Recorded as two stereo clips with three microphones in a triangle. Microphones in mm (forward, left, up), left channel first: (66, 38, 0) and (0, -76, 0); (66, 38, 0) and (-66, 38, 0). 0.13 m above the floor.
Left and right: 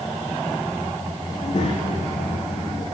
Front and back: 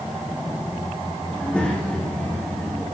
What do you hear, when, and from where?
1.3 s a child speaking: 80° left, 6 m